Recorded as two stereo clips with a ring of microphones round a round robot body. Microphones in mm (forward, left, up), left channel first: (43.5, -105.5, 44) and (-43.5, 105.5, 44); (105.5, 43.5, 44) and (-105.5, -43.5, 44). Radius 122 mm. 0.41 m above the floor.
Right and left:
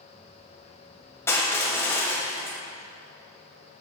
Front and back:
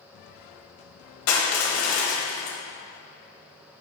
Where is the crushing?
10° left, 1.4 m.